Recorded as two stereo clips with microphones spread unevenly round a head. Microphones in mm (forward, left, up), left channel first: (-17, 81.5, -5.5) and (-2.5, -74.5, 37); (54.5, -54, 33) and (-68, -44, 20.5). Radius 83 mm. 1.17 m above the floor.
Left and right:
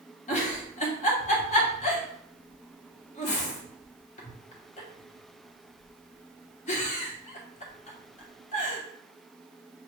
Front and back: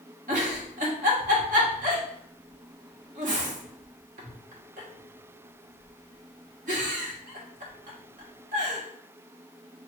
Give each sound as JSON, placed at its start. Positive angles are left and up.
{"t": 0.3, "sound": "a giggle", "azimuth_deg": 145, "distance_m": 1.0}